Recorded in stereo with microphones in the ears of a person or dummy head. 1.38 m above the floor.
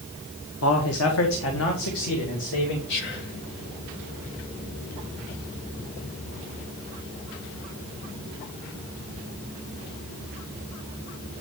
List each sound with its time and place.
0.6 s a man speaking: 75° left (ahead or behind), 1.2 m; by 2.8 s 65° left (ahead or behind), 3 m
2.9 s whispering: 65° left (ahead or behind), 1.9 m